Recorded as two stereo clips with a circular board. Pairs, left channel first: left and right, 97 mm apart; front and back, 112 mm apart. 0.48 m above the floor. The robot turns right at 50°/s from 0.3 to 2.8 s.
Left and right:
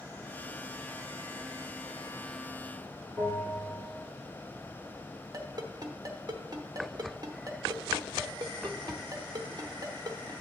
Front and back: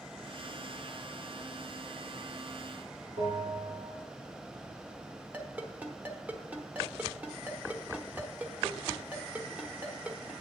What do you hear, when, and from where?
3.2 s a bell: 170° left, 4 m
5.3 s a ringtone: 110° right, 1.0 m